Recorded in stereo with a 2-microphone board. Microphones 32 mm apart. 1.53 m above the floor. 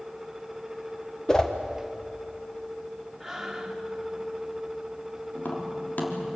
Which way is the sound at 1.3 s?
20° left (ahead or behind).